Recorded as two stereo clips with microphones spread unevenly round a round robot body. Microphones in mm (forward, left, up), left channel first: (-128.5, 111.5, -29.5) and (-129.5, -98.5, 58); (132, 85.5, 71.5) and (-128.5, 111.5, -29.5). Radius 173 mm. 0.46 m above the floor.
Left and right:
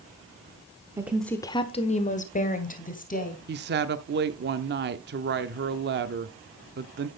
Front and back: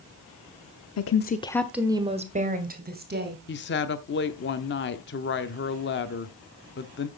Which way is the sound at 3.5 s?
55° right.